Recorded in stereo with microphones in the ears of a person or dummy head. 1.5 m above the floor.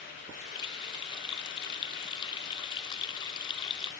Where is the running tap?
25° left (ahead or behind), 2.5 m.